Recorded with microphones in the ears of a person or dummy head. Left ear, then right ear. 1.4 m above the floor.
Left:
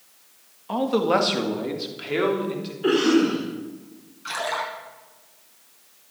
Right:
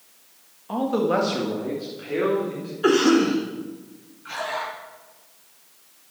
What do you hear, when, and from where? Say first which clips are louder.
0.7 s a man speaking: left 1 dB; 15° left (ahead or behind), 1.9 m; by 2.7 s 50° left (ahead or behind), 4.5 m
2.8 s a cough: right 2 dB; 60° right (ahead or behind), 3.5 m
4.2 s a splash: left 2 dB; 80° left, 5.5 m